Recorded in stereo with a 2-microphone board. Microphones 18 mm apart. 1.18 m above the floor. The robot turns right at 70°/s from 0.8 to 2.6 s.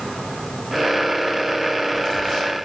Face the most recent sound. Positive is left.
No sound to turn to.